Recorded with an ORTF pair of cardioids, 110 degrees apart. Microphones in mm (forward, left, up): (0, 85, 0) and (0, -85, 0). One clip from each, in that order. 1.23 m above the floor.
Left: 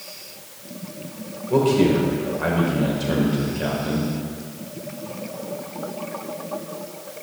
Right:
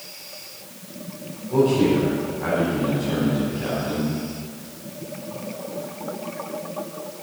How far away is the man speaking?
About 6 m.